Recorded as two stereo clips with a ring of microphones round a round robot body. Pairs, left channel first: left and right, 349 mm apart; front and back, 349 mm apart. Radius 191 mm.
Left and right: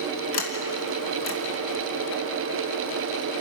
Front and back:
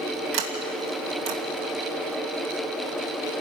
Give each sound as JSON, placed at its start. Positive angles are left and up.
{"t": 0.3, "sound": "a sliding door", "azimuth_deg": 140, "distance_m": 2.5}